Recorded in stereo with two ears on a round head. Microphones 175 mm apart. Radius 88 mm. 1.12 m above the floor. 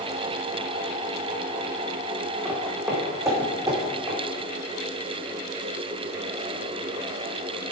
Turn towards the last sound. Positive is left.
turn(degrees=-20)  # may be behind; listen again after turning